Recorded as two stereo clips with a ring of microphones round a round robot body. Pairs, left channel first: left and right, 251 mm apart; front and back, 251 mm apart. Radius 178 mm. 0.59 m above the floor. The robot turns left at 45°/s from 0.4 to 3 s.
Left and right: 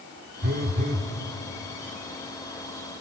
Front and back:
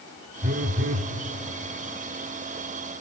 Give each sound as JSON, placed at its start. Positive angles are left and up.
{"t": 0.4, "sound": "a phone buzzing", "azimuth_deg": -130, "distance_m": 1.8}